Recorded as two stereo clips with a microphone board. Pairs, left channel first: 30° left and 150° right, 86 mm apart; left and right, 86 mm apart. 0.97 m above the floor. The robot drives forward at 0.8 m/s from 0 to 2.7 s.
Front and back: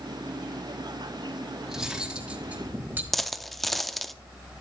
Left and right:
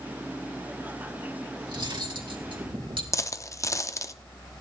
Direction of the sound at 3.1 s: 115° left.